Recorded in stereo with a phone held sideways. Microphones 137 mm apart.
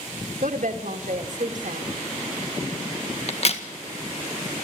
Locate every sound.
0.4 s a woman speaking: 65° right (ahead or behind), 2.5 m
3.3 s a crack: 50° left (ahead or behind), 1.8 m